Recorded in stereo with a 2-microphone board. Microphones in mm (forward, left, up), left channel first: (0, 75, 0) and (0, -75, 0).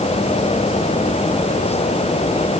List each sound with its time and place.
Only background noise.